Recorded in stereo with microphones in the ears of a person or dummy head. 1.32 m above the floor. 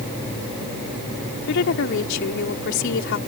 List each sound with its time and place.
1.5 s a woman speaking: 65° left (ahead or behind)